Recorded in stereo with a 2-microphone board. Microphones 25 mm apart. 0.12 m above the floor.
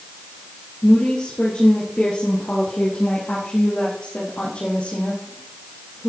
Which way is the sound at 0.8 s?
50° left (ahead or behind).